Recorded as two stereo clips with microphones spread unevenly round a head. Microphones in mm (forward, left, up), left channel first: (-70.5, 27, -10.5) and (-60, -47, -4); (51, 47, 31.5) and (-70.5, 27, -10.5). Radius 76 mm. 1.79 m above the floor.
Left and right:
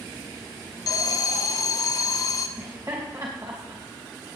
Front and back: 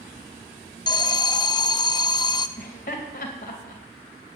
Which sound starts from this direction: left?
An alarm, at 0.9 s.